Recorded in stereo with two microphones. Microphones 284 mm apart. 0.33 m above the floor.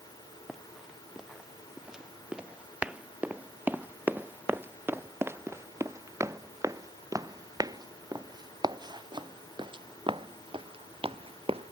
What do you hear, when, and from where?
0.5 s running footsteps: centre (ahead or behind); by 11.7 s 20° right (ahead or behind)